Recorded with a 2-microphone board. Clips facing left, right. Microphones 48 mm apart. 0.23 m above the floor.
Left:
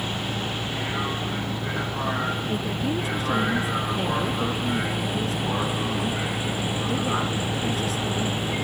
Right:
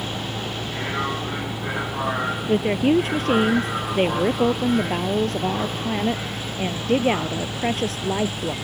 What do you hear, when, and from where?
0.0 s a vehicle: 25° right (ahead or behind); by 8.6 s 25° left (ahead or behind)
2.5 s a woman speaking: 50° right (ahead or behind)